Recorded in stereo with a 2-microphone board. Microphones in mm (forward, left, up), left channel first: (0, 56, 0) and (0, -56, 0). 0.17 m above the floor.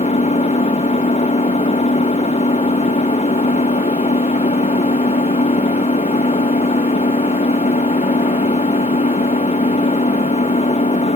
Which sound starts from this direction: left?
An engine running, at 0.0 s.